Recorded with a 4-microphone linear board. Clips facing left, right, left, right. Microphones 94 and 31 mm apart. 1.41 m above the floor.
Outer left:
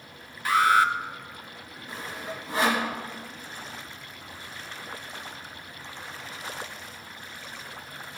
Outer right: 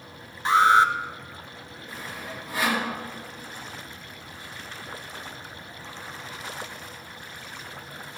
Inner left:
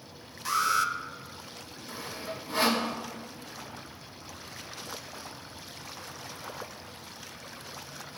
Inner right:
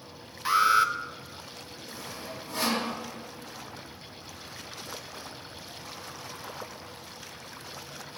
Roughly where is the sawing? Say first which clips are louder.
Outer left 2 dB, inner left 3 dB; left.